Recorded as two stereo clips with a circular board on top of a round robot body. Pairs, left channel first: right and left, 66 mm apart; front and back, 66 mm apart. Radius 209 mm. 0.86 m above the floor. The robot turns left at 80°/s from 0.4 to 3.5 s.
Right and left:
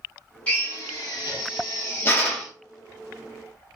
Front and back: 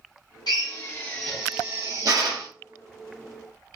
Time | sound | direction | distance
0.5 | a drill | 20° right | 1.0 m